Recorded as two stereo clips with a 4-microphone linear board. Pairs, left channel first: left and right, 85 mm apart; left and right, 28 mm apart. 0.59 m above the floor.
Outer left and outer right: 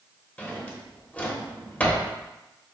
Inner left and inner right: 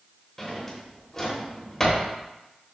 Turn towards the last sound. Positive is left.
turn(degrees=20)  # may be behind; listen again after turning